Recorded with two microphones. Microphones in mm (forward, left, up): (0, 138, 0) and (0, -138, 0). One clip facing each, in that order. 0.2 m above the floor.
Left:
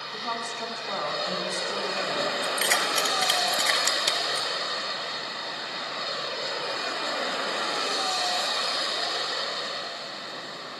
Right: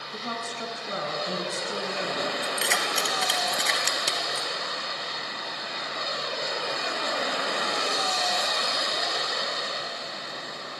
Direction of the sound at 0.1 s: 20° right (ahead or behind).